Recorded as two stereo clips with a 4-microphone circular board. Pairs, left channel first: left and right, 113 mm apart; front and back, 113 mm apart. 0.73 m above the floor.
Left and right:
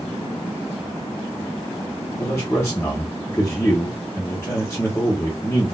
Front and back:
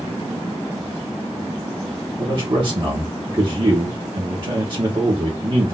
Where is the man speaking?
150° left, 1.5 m.